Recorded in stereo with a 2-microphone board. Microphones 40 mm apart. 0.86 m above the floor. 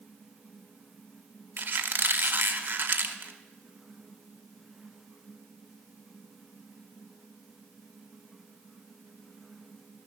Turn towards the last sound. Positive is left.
turn(degrees=-55)  # may be behind; listen again after turning